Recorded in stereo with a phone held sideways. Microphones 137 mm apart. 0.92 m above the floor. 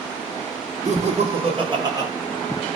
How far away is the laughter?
About 1.5 m.